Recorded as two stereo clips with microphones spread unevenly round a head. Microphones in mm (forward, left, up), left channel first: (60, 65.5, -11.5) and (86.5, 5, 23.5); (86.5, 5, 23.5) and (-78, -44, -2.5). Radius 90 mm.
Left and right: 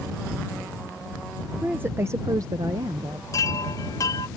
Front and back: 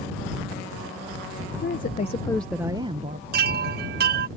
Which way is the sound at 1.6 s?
10° right.